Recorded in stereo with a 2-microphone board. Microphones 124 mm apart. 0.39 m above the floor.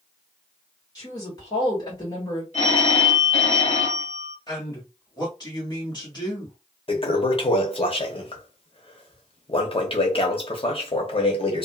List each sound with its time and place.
0.9 s a woman speaking: 30° left (ahead or behind), 1.6 m
2.5 s a phone ringing: 60° left (ahead or behind), 1.5 m
4.5 s a man speaking: 35° left (ahead or behind), 1.5 m
6.9 s a toilet flushing: 45° left (ahead or behind), 0.7 m